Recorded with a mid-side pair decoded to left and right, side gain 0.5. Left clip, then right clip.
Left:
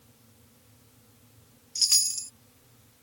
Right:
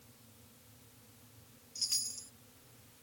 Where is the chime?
65° left.